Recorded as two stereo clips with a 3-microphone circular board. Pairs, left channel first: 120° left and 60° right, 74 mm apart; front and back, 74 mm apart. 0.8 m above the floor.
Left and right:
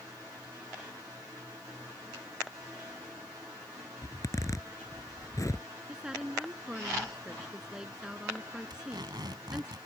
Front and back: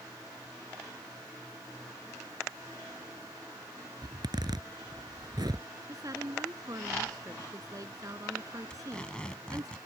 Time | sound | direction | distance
4.0 | a zipper | 160° left | ?
5.9 | a woman speaking | 140° right | ?
8.7 | tape being pulled | 75° right | ?